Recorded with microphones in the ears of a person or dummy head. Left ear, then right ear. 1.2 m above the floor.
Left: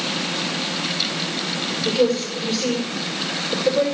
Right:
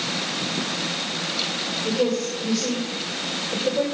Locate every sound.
1.9 s a woman speaking: 40° left (ahead or behind), 6.5 m